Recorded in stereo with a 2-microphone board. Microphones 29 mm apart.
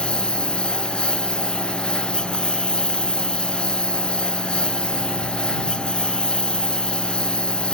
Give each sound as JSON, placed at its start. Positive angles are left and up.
{"t": 0.0, "sound": "a lawn mower", "side_deg": 35}